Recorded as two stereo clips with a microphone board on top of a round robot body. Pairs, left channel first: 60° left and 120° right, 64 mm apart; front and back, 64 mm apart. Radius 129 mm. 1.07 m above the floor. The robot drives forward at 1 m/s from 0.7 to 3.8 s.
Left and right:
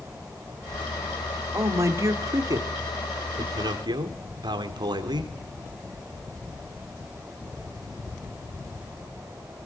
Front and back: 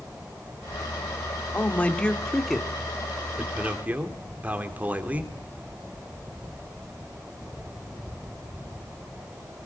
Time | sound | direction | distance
1.5 | a man speaking | 65° right | 3 m